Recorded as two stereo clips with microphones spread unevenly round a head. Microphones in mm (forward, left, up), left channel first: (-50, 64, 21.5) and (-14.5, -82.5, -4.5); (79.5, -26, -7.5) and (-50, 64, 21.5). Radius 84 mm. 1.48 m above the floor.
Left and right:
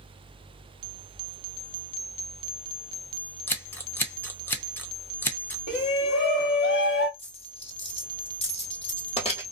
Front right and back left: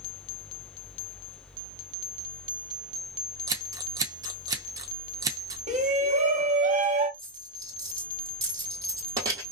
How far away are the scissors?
About 0.6 m.